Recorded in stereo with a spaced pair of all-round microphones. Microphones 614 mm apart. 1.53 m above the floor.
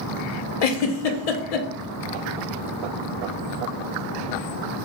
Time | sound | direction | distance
0.6 | a giggle | 75° left (ahead or behind) | 0.6 m